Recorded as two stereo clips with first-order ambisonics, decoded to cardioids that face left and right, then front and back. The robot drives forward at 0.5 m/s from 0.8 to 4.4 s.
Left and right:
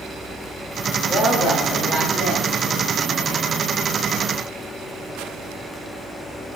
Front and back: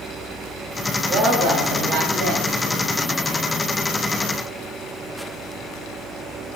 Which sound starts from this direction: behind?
A woman speaking, at 1.1 s.